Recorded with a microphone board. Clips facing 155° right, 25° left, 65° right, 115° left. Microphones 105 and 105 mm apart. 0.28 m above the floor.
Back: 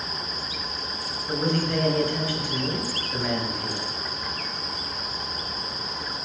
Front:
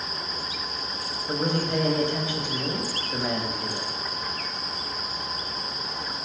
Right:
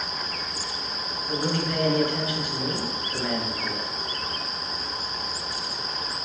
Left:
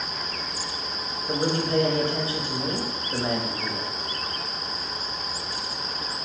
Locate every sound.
1.3 s a man speaking: 80° left, 1.1 m